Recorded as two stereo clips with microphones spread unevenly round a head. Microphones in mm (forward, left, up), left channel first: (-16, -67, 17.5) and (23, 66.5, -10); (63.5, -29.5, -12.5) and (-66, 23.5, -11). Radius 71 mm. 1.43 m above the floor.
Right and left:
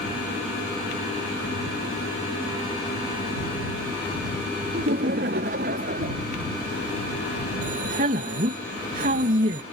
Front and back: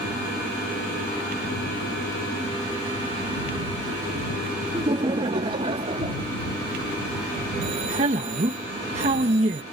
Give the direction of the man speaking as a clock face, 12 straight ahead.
8 o'clock.